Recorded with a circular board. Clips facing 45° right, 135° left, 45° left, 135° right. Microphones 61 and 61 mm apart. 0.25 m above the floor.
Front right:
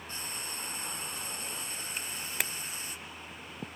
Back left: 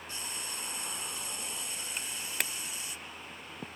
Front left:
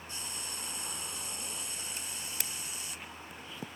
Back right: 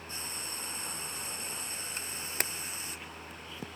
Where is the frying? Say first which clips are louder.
Front right 1 dB, back right 2 dB; 90° right, 1.8 m.